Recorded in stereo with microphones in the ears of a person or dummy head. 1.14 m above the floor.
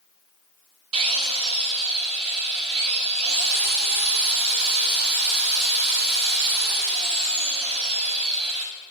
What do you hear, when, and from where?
0.9 s a drill: 35° right (ahead or behind), 1.0 m